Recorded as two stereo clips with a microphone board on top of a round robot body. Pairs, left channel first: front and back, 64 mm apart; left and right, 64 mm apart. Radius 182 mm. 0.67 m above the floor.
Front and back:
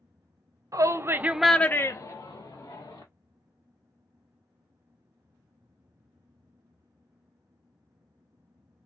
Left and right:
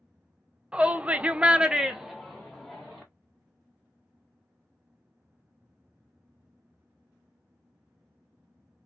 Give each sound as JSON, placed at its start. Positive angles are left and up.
{"t": 0.7, "sound": "a shout", "azimuth_deg": -160, "distance_m": 0.7}